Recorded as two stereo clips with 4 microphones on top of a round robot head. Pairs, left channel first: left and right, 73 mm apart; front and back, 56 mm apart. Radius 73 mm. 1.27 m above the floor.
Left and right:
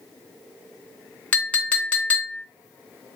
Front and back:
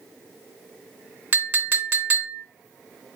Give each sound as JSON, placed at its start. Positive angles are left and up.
{"t": 1.3, "sound": "a clink", "azimuth_deg": 150, "distance_m": 0.6}